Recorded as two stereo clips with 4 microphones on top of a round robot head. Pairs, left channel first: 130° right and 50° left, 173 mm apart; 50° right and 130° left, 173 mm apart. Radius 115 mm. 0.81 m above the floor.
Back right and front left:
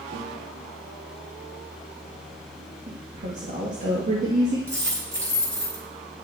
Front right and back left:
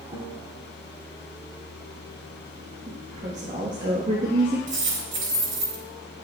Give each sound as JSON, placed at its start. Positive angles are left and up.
{"t": 0.1, "sound": "a guitar", "azimuth_deg": 70, "distance_m": 2.5}
{"t": 2.9, "sound": "a woman speaking", "azimuth_deg": 90, "distance_m": 1.3}
{"t": 4.7, "sound": "a dropped coin", "azimuth_deg": 125, "distance_m": 3.5}